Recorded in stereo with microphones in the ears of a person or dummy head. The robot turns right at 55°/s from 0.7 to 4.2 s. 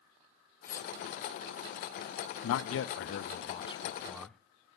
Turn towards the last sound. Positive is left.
turn(degrees=180)